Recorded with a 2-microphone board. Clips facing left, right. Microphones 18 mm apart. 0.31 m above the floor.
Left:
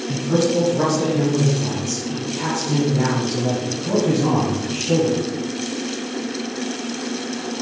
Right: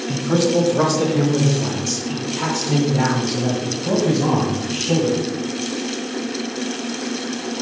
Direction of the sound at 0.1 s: 30° right (ahead or behind).